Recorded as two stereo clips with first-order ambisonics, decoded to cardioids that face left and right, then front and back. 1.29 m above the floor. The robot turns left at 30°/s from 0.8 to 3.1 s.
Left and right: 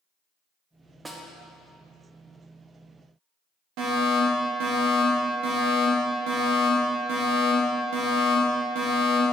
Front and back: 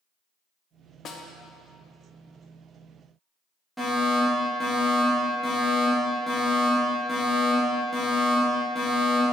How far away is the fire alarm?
About 1.5 m.